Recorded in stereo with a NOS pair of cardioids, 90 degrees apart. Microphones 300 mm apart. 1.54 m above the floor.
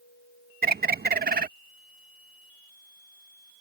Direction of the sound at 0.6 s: 30° right.